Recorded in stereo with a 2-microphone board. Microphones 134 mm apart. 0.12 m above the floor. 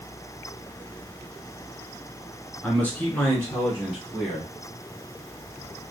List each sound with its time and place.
2.6 s a man speaking: 10° left (ahead or behind), 1.1 m